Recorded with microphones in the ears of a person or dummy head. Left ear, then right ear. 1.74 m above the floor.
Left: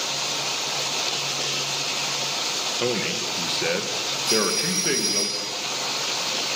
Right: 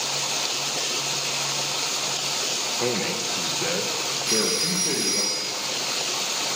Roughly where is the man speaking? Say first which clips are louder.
Left 1 dB; centre.